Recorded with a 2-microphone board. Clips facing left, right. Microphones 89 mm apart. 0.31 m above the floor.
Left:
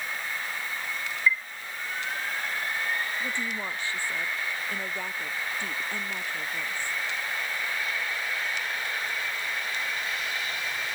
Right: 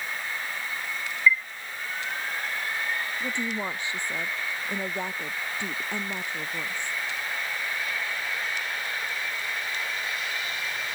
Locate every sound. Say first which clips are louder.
1.3 s a chime: right 4 dB; 35° left (ahead or behind)
3.2 s a woman speaking: right 2 dB; 20° right (ahead or behind)